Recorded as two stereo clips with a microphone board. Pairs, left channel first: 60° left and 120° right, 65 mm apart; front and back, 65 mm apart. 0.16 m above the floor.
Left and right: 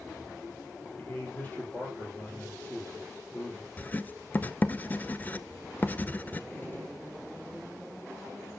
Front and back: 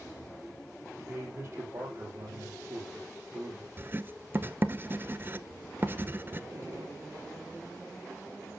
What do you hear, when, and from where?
1.0 s a man speaking: 125° left, 4.5 m
3.8 s writing: 125° left, 0.5 m
6.5 s a gunshot: 120° left, 6 m